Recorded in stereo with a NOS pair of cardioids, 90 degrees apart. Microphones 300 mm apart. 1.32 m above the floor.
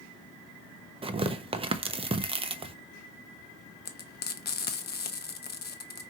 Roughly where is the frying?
Ahead left.